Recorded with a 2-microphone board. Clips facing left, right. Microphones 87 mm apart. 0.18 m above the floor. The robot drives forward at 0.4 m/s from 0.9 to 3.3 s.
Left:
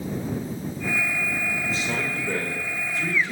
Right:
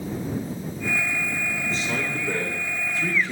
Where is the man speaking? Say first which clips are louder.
Even; 5° left (ahead or behind), 3.5 m.